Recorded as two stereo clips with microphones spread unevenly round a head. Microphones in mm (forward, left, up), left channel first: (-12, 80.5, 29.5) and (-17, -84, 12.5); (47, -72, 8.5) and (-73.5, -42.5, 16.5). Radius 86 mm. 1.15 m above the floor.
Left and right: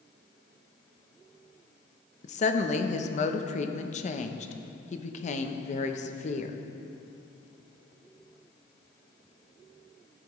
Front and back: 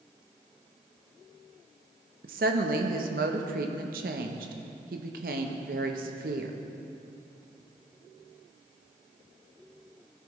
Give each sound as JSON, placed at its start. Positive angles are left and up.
{"t": 2.2, "sound": "a woman speaking", "azimuth_deg": 135, "distance_m": 0.7}